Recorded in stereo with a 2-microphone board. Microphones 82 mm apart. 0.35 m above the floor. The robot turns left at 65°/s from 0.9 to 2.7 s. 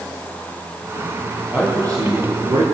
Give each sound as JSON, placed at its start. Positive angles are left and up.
{"t": 1.5, "sound": "a man speaking", "azimuth_deg": -15, "distance_m": 7.0}